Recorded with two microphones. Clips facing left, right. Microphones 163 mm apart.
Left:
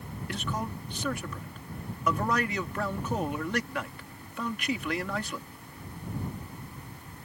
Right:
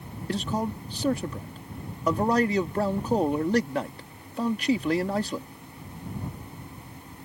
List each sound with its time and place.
0.3 s a man speaking: 35° right (ahead or behind)